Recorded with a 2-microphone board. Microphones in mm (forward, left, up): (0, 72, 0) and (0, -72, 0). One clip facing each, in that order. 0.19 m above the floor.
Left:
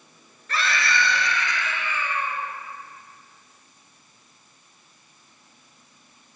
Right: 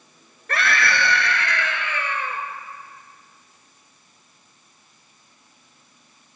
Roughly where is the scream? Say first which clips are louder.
Right 3 dB; right.